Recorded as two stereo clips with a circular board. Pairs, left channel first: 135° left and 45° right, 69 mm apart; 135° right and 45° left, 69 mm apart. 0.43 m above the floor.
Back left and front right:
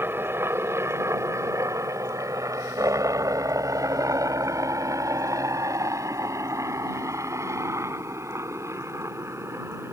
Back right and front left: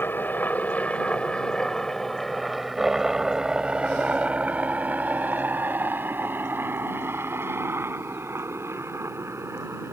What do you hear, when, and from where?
0.0 s a helicopter: 85° right; by 9.9 s straight ahead